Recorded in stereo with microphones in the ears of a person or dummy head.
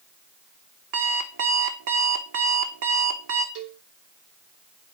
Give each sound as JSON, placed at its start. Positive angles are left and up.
{"t": 0.9, "sound": "an alarm clock", "side_deg": -60, "distance_m": 1.3}
{"t": 3.5, "sound": "a cowbell", "side_deg": -70, "distance_m": 2.5}